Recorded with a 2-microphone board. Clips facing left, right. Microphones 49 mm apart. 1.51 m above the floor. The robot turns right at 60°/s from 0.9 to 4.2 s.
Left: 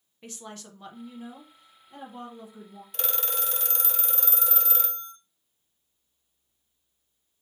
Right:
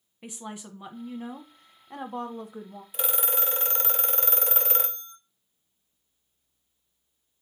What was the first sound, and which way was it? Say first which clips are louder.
A woman speaking: right 3 dB; 170° right.